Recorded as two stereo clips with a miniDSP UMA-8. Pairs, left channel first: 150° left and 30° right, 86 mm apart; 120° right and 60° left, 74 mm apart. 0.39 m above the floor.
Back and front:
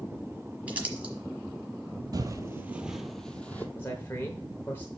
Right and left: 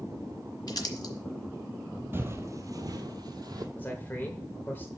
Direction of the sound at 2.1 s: 5° left.